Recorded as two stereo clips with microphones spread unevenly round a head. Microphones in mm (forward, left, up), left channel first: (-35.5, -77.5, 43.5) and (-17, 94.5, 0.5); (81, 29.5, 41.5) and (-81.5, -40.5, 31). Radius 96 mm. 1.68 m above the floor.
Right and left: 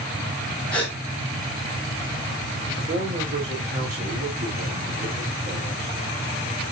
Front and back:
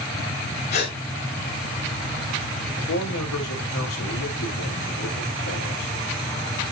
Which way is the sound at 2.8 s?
25° left.